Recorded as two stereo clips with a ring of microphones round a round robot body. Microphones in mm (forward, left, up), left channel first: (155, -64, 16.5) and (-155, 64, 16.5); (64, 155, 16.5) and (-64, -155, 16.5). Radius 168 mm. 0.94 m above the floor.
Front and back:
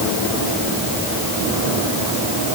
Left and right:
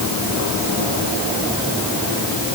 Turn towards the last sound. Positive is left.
No sound to turn to.